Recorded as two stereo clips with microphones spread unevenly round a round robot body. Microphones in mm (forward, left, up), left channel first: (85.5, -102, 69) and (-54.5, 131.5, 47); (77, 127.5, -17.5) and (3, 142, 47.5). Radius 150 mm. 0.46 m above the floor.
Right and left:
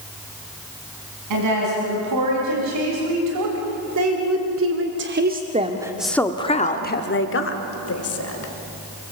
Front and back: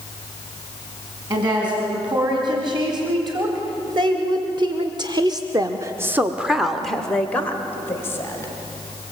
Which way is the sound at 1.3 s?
130° left.